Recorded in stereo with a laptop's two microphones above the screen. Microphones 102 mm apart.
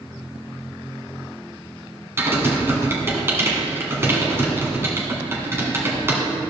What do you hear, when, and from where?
2.2 s typing on a keyboard: 25° right (ahead or behind), 1.5 m